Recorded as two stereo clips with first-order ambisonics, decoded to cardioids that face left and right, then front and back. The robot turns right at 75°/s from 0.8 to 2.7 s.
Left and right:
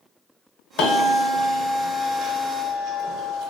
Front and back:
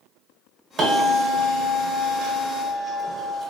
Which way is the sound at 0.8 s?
120° left.